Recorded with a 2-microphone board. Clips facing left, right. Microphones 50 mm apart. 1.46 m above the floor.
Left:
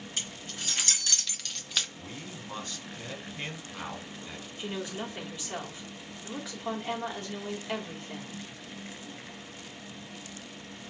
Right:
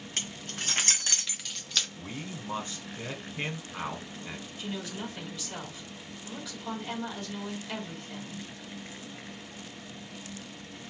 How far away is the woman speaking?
About 1.7 m.